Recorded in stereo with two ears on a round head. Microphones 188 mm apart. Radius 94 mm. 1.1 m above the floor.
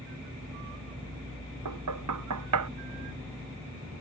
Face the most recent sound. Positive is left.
turn(degrees=-85)